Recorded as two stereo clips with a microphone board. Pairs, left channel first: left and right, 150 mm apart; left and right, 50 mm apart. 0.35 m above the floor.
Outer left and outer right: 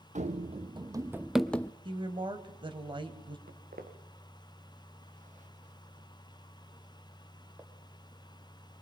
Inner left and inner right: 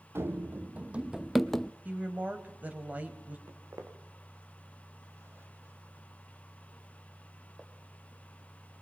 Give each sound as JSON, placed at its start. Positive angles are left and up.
{"t": 0.1, "sound": "running footsteps", "side_deg": -50, "distance_m": 0.9}
{"t": 1.9, "sound": "a woman speaking", "side_deg": -30, "distance_m": 2.0}
{"t": 3.5, "sound": "footsteps", "side_deg": -80, "distance_m": 3.0}